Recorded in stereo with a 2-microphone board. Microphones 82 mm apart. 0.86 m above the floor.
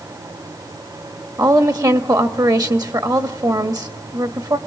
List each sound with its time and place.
1.4 s a woman speaking: 50° right (ahead or behind), 1.6 m